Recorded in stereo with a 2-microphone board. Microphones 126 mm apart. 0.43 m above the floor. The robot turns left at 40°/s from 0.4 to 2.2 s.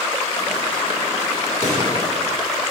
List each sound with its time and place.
1.6 s a pop: 80° right, 3.5 m; by 1.9 s 70° right (ahead or behind), 3.5 m